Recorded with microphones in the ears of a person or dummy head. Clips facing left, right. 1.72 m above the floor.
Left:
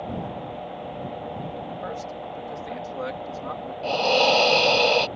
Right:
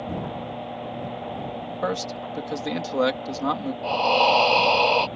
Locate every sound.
1.8 s a man speaking: 85° right
3.8 s breathing: 20° left (ahead or behind)